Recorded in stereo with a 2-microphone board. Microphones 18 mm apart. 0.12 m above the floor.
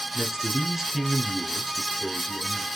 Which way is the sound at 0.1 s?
20° right (ahead or behind).